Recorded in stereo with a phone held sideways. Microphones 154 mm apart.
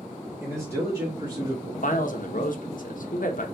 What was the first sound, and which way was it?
A man speaking, 10° right (ahead or behind).